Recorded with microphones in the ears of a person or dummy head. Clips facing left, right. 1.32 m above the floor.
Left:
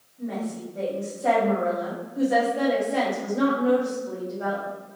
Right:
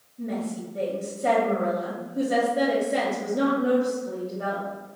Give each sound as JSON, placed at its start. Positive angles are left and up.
{"t": 0.2, "sound": "a woman speaking", "side_deg": -35, "distance_m": 1.9}